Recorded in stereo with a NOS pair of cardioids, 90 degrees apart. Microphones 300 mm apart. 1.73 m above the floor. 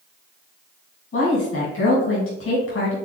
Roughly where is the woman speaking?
Ahead left.